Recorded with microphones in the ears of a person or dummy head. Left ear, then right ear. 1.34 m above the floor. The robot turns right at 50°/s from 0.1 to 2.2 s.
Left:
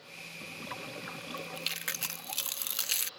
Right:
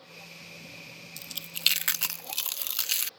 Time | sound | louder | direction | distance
1.2 | chewing | even | 55° right (ahead or behind) | ?